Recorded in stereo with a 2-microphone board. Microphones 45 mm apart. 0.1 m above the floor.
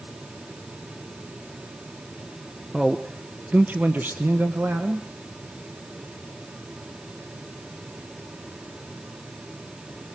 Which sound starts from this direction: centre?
A man speaking, at 2.7 s.